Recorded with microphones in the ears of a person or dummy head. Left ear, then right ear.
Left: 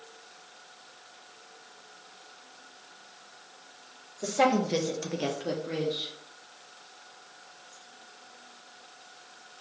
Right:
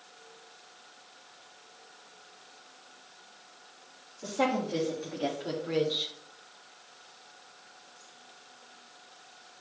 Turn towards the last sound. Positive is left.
turn(degrees=-45)  # may be behind; listen again after turning